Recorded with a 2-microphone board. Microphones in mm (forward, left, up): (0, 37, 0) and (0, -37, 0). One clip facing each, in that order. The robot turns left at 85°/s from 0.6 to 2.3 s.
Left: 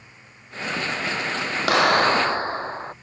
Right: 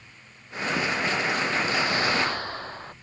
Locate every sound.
1.7 s a clap: 85° left; by 2.9 s 30° left